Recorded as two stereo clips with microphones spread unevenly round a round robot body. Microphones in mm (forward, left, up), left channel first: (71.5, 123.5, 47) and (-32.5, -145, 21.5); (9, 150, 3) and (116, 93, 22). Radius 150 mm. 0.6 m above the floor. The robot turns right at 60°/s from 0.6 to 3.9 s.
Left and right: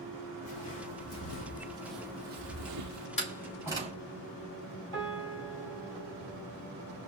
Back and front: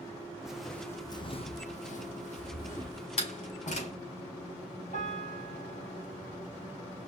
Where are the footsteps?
55° left, 1.8 m; by 3.1 s 95° right, 0.9 m.